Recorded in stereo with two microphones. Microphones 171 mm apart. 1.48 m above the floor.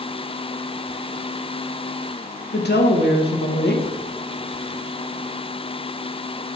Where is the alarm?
No alarm in this recording.